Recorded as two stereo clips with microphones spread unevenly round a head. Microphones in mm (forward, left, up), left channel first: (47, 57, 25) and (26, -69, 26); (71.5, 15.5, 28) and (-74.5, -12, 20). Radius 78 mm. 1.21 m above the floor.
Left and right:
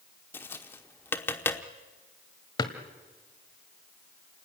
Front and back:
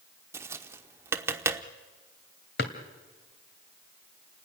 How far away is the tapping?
About 0.8 m.